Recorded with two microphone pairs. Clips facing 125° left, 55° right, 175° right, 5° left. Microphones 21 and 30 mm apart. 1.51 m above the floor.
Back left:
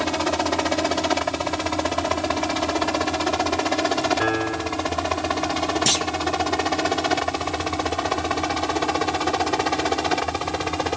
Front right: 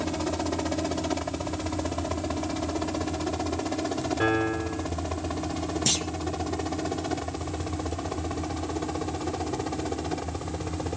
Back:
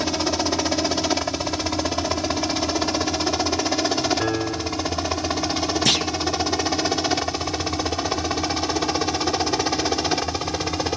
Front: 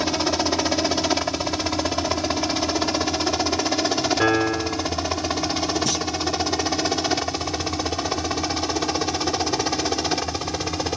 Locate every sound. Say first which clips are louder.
0.0 s a helicopter: back left 7 dB, front 1 dB; 85° left; by 11.0 s 100° left
4.2 s a piano: back left 2 dB, front 4 dB; 50° left
5.9 s a clunk: back left 4 dB, back 5 dB; 165° right